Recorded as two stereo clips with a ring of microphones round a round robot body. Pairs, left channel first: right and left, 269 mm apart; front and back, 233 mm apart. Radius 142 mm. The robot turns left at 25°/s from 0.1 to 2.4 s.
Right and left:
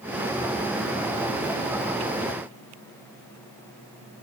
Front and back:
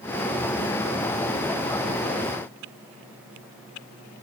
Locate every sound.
Only background noise.